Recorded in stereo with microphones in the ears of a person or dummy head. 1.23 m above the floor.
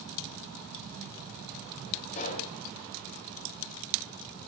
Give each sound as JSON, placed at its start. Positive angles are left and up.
{"t": 2.1, "sound": "a pop", "side_deg": 45, "distance_m": 4.0}